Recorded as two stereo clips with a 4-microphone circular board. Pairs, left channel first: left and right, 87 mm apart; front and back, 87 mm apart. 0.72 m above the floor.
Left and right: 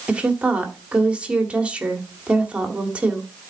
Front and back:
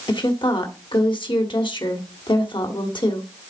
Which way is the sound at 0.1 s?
15° right.